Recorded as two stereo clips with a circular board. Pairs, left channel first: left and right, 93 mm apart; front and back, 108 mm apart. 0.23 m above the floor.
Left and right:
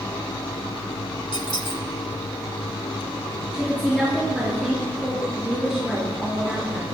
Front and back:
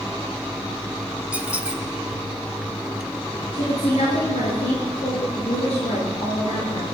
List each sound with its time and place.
1.3 s a squeak: 105° left, 0.9 m
3.5 s a woman speaking: straight ahead, 4 m